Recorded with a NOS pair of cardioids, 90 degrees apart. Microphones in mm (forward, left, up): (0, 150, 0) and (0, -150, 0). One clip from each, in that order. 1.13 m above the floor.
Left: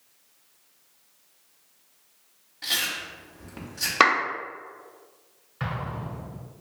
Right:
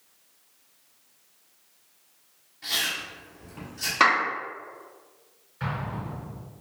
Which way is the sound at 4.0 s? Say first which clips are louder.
Left 1 dB; 55° left.